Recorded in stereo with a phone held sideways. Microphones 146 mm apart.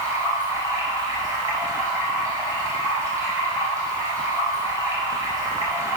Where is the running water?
25° right (ahead or behind), 3 m.